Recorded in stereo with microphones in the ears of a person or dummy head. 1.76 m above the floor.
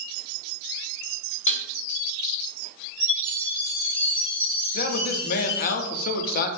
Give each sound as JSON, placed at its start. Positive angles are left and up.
{"t": 1.5, "sound": "dishes clattering", "side_deg": 5, "distance_m": 1.6}
{"t": 3.0, "sound": "a chime", "side_deg": -15, "distance_m": 2.0}
{"t": 4.7, "sound": "a man speaking", "side_deg": 50, "distance_m": 0.6}